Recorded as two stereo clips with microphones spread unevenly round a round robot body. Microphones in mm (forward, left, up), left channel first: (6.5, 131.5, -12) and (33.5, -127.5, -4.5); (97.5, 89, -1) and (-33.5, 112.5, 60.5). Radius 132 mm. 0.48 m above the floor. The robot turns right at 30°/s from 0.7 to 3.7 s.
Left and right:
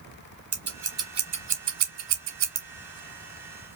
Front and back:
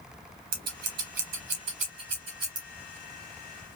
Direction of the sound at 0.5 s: 165° right.